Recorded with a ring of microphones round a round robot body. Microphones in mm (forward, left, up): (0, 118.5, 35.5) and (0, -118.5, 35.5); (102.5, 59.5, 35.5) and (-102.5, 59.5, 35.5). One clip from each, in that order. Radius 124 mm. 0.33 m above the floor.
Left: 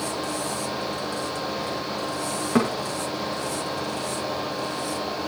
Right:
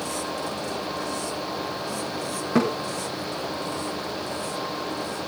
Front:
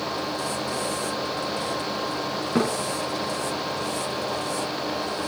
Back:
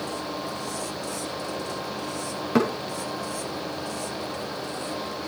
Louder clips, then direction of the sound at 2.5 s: Even, back 2 dB; 155° left.